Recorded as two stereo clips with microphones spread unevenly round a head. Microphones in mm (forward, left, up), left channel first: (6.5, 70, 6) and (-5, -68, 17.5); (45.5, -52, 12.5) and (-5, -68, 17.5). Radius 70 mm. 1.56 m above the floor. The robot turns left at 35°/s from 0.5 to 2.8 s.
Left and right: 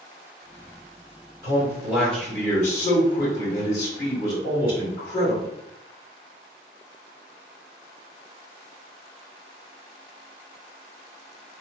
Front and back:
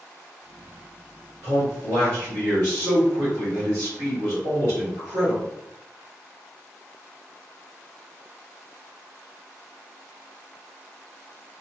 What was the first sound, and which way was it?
A man speaking, 155° right.